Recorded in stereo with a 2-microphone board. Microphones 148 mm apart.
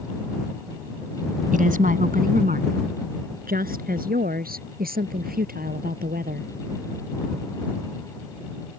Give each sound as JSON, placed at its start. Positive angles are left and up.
{"t": 1.5, "sound": "a woman speaking", "side_deg": -65}